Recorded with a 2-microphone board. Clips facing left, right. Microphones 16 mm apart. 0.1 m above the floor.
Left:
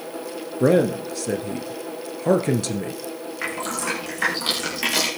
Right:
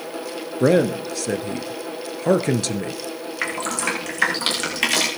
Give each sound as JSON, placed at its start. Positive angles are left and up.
{"t": 0.6, "sound": "a man speaking", "side_deg": -25, "distance_m": 1.5}
{"t": 3.4, "sound": "dripping", "side_deg": -45, "distance_m": 6.0}